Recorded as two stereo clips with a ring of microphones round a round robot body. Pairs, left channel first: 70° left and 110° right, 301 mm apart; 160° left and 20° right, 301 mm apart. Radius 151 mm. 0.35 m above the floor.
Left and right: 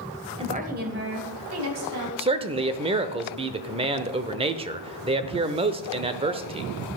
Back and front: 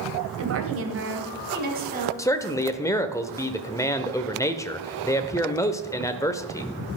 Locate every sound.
0.4 s a woman speaking: 45° right, 2.0 m; by 2.1 s 85° right, 4 m
2.2 s a man speaking: 140° right, 0.9 m